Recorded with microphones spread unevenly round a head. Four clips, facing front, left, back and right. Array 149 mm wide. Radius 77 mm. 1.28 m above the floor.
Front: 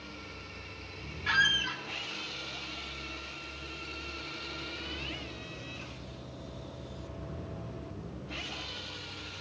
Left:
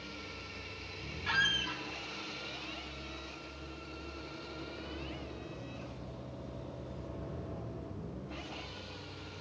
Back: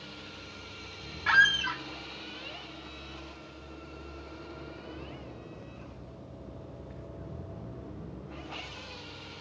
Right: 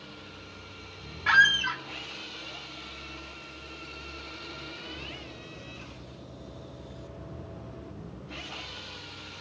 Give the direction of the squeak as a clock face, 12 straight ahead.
4 o'clock.